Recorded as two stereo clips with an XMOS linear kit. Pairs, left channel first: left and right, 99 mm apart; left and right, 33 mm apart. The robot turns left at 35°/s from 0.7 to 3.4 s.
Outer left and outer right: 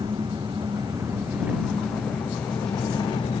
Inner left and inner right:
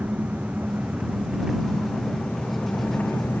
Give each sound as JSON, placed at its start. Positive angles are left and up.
{"t": 0.0, "sound": "an engine running", "azimuth_deg": -140}